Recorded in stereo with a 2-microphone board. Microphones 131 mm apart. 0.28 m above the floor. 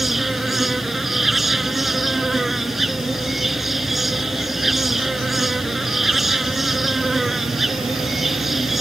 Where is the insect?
Centre (ahead or behind).